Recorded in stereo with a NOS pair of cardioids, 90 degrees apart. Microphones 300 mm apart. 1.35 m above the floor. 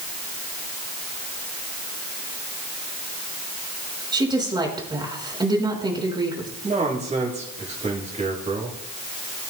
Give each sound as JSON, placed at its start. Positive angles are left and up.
{"t": 4.1, "sound": "a woman speaking", "azimuth_deg": -15, "distance_m": 5.5}
{"t": 6.6, "sound": "a man speaking", "azimuth_deg": -20, "distance_m": 7.0}